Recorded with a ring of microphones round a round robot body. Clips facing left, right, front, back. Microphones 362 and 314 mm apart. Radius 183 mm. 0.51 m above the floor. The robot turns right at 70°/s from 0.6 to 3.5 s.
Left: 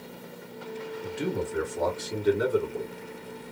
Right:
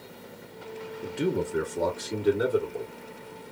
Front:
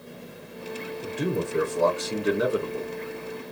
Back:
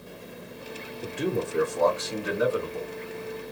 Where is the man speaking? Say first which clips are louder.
Right 3 dB, even; 90° right, 1.4 m; by 2.9 s 40° left, 1.4 m.